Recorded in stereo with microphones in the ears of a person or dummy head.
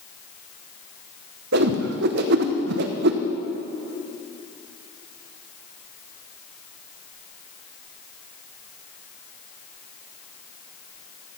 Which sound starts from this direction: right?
A whoosh, at 1.5 s.